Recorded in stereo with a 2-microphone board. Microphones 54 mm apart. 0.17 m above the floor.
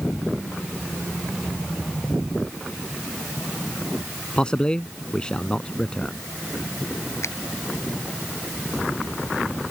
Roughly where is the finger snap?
Left.